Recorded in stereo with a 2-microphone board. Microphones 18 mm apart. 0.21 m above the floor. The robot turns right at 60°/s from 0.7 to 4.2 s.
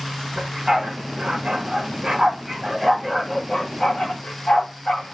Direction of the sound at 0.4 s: 35° right (ahead or behind).